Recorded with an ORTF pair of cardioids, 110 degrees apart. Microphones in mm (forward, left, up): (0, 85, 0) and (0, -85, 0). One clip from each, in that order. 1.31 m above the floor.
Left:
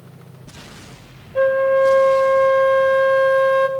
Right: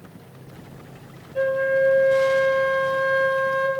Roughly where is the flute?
Ahead left.